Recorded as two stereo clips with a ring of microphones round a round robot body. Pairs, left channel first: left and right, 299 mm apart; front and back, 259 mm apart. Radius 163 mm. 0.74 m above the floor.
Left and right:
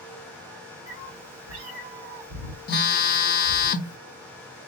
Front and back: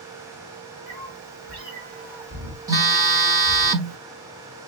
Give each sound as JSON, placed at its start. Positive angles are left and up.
{"t": 0.9, "sound": "a cat meowing", "azimuth_deg": -135, "distance_m": 3.5}
{"t": 2.7, "sound": "a phone buzzing", "azimuth_deg": 115, "distance_m": 0.5}